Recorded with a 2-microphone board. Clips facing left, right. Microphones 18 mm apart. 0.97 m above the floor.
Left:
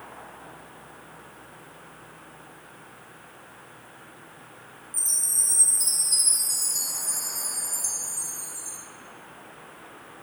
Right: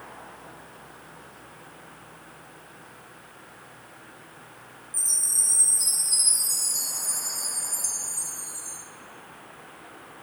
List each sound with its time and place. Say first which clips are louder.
4.9 s a chime: right 1 dB; 15° right (ahead or behind), 4 m